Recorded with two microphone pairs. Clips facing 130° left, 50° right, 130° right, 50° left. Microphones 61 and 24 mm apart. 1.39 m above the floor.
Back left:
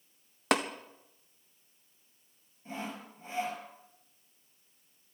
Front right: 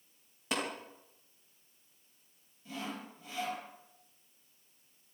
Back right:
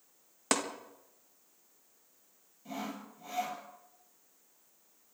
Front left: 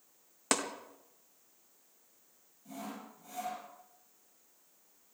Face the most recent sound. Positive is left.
turn(degrees=-175)